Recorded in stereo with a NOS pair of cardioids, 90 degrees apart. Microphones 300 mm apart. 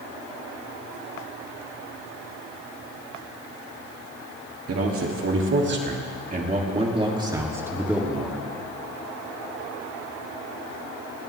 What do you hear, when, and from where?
4.7 s a man speaking: 50° right, 3 m; by 8.4 s straight ahead, 3 m